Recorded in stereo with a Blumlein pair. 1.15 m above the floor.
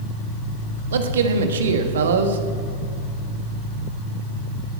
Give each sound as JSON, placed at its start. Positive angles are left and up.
{"t": 0.9, "sound": "a man speaking", "azimuth_deg": -65, "distance_m": 1.6}